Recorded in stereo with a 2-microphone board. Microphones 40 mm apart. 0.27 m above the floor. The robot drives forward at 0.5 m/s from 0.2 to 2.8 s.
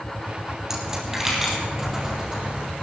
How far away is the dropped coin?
About 3 m.